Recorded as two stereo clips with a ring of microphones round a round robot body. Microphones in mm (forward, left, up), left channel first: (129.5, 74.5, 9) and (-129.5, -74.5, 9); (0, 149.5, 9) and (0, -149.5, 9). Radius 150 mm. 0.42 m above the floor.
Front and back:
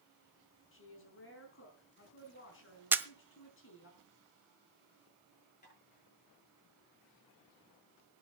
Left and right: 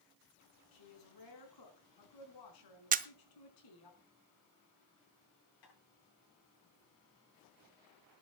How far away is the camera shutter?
About 0.6 m.